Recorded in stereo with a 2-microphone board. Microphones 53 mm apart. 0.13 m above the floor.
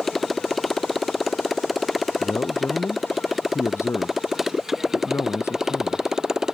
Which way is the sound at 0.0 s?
5° left (ahead or behind).